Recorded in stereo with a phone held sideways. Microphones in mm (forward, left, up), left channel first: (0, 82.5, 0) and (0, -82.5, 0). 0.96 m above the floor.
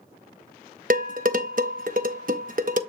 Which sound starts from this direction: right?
Dishes clattering, at 0.9 s.